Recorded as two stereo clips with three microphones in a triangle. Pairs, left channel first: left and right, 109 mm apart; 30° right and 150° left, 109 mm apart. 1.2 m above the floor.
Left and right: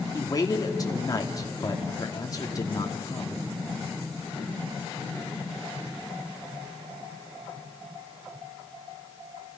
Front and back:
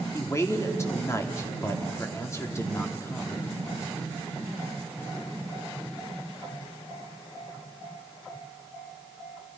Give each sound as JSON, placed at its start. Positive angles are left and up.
{"t": 0.1, "sound": "a man speaking", "azimuth_deg": 35, "distance_m": 3.0}